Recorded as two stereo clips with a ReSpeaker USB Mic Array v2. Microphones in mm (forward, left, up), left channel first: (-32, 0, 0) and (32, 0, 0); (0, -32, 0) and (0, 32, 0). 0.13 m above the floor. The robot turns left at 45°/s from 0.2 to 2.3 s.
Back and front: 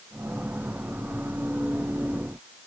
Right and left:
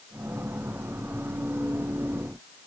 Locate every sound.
Only background noise.